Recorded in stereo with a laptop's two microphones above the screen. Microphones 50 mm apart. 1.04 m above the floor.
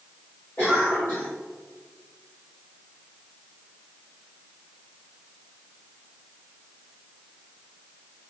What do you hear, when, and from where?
0.6 s a cough: 75° left (ahead or behind), 3 m